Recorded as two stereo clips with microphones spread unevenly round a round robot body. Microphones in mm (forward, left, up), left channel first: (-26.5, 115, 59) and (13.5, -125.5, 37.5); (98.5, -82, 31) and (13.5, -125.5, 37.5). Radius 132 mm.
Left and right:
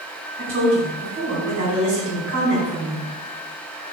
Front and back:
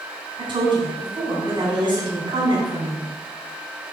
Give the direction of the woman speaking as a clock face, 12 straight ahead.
4 o'clock.